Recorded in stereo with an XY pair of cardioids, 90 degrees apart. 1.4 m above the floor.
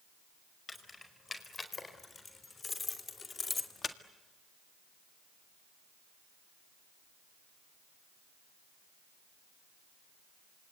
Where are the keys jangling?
30° left, 5 m; by 4.0 s 45° left, 1.7 m.